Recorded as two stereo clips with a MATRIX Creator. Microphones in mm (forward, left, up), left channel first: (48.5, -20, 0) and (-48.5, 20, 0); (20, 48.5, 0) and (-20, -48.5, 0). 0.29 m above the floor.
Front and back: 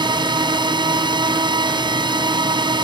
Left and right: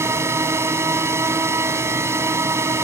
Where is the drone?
170° right.